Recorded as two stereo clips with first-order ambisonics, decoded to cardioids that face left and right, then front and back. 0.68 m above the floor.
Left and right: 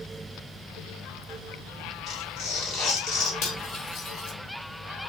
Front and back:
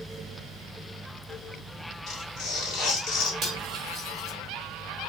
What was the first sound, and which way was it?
Tearing paper, 50° left.